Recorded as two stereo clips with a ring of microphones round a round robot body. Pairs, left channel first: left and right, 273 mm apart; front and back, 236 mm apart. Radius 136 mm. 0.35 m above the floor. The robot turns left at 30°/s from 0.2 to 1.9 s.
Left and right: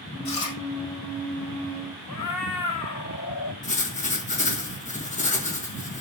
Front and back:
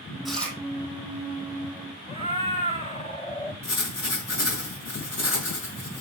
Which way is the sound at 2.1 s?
65° left.